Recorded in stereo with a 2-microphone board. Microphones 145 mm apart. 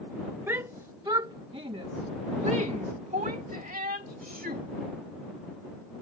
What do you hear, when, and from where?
0.5 s a shout: 15° right (ahead or behind); by 4.6 s 75° right (ahead or behind)